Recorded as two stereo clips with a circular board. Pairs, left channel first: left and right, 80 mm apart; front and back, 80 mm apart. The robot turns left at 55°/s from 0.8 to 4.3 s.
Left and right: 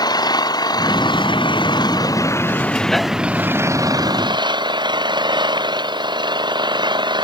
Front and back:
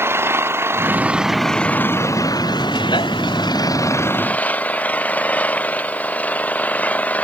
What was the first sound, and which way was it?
An engine running, 120° left.